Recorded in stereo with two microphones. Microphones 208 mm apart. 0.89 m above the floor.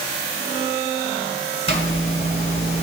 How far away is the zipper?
About 1.8 m.